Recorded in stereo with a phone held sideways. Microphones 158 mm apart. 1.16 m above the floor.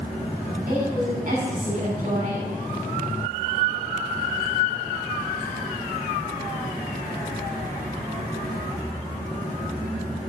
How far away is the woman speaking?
About 6 m.